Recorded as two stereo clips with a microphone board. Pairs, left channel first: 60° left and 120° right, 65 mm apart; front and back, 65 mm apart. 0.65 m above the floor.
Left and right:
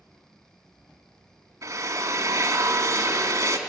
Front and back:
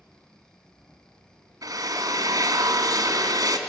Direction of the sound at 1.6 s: 155° right.